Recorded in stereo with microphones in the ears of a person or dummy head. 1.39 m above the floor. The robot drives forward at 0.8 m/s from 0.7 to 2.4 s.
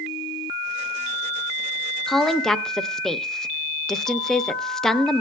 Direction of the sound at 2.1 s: 5° right (ahead or behind).